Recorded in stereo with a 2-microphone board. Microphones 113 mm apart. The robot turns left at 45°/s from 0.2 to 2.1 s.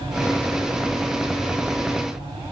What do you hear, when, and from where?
Only background noise.